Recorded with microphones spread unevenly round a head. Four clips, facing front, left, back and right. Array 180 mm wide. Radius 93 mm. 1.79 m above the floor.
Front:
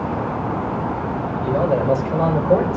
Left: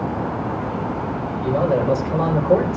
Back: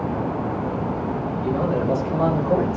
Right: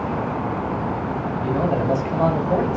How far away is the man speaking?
About 8 m.